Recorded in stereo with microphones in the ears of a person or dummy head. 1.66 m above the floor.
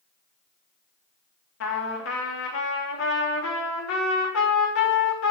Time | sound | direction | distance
1.6 | a trumpet | 85° left | 3 m